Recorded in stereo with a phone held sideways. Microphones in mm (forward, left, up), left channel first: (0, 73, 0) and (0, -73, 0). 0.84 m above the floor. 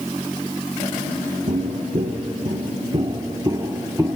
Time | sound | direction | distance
1.5 | footsteps | 55° right (ahead or behind) | 1.3 m